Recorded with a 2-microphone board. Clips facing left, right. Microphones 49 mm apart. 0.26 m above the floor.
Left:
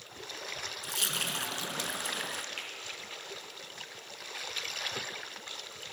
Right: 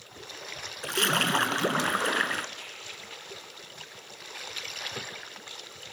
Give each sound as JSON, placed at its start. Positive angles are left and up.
{"t": 0.8, "sound": "a splash", "side_deg": -50, "distance_m": 0.6}
{"t": 2.6, "sound": "a finger snap", "side_deg": 60, "distance_m": 5.5}